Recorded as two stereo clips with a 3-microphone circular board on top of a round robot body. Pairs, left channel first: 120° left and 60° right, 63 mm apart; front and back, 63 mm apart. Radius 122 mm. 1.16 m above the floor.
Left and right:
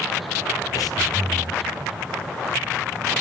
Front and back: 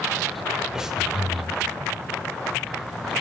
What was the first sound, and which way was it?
Breathing, 100° left.